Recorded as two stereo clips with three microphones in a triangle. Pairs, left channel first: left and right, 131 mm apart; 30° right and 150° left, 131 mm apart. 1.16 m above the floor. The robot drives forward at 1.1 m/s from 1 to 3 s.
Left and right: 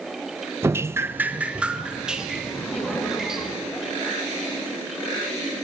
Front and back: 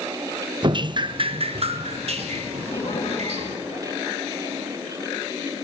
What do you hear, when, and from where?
0.6 s dripping: 160° right, 0.5 m; by 3.6 s 175° right, 2.5 m
2.6 s laughter: 5° left, 6 m